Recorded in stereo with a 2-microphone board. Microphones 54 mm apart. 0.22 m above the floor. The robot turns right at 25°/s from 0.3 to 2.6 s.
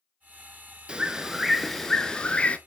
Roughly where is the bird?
Ahead.